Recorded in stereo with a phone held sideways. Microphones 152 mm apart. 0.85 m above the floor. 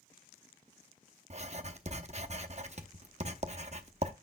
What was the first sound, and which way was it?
Writing, 45° right (ahead or behind).